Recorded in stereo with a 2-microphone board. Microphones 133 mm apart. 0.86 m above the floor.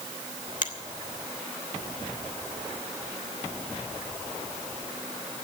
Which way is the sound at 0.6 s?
70° left (ahead or behind).